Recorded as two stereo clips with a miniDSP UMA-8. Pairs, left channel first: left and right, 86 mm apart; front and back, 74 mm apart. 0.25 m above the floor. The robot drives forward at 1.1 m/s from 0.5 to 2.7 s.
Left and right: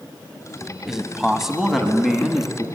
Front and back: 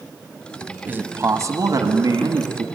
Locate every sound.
0.9 s a man speaking: 170° right, 1.1 m; by 2.6 s straight behind, 2.5 m